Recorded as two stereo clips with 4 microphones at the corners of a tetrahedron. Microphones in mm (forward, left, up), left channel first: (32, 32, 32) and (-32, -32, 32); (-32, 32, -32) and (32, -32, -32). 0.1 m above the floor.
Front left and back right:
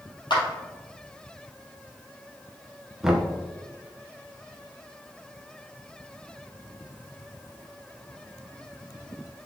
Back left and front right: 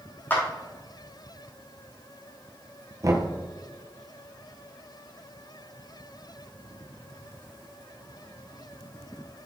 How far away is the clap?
About 2.5 m.